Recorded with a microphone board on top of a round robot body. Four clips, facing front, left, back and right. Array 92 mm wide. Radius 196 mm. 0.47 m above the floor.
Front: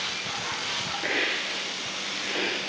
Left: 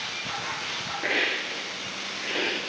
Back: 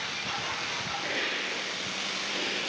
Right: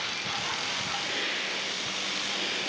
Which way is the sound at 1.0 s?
60° left.